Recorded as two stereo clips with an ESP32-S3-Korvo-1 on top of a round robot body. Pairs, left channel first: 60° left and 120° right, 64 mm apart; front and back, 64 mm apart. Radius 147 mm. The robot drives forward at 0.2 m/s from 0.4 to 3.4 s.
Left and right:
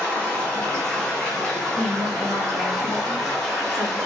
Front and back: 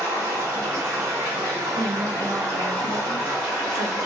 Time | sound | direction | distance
0.0 | running water | 130° left | 1.4 m
1.8 | a woman speaking | 170° left | 1.8 m